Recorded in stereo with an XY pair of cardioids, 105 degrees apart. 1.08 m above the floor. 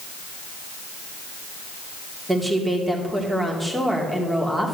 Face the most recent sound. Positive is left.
turn(degrees=-15)